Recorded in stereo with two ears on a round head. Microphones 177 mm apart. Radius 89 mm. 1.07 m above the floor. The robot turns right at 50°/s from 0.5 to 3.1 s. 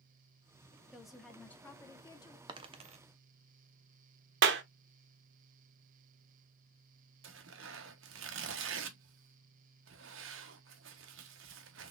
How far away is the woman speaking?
About 0.7 m.